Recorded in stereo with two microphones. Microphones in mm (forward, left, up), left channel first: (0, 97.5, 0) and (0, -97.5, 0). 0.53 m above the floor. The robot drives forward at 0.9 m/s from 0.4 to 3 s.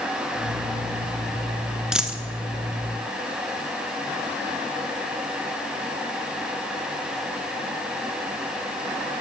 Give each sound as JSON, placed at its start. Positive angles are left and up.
{"t": 1.9, "sound": "a dropped coin", "side_deg": -5, "distance_m": 0.7}